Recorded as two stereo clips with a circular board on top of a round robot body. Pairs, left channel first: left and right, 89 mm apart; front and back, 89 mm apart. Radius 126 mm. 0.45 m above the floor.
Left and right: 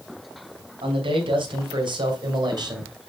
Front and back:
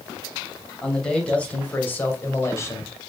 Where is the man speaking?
80° right, 3 m; by 2.9 s 50° right, 2.5 m.